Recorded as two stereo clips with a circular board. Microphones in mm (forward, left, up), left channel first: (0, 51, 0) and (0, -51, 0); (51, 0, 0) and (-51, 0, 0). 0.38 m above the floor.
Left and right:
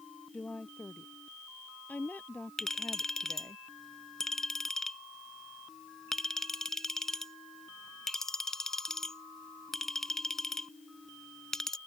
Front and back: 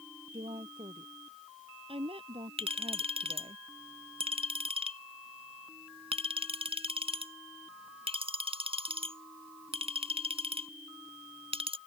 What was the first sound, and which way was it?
A woman speaking, 165° left.